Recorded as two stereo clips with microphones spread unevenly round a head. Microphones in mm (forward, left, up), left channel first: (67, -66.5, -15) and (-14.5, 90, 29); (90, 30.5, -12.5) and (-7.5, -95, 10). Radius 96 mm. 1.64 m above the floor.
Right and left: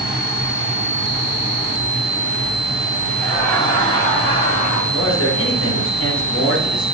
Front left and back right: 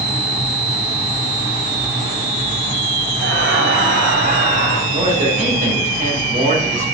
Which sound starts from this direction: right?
A man speaking, at 4.9 s.